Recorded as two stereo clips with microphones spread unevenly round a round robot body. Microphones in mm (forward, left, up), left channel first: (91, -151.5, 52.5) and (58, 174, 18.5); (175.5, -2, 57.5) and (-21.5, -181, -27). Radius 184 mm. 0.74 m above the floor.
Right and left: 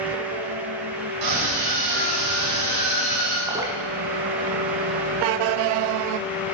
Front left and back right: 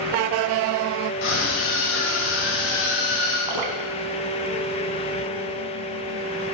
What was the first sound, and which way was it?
A scream, 75° left.